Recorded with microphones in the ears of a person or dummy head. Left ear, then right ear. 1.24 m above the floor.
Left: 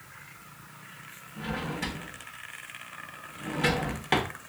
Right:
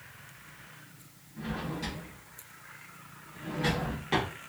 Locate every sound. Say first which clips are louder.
1.4 s a drawer: left 3 dB; 40° left (ahead or behind), 1.0 m